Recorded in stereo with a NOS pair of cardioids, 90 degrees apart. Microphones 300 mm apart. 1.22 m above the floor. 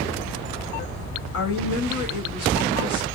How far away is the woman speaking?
About 1.7 m.